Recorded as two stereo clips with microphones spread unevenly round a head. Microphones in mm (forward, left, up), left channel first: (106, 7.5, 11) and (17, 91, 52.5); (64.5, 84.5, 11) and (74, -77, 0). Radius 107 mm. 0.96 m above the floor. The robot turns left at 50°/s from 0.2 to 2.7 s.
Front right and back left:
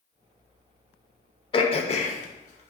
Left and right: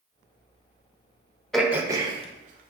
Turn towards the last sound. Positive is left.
turn(degrees=-55)